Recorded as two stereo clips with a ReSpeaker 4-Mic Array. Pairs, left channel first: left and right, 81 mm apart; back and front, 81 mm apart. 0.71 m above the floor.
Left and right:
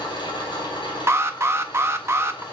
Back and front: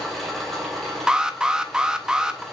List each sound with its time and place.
0.0 s an engine running: 90° left, 3 m
1.1 s an alarm: 75° right, 0.7 m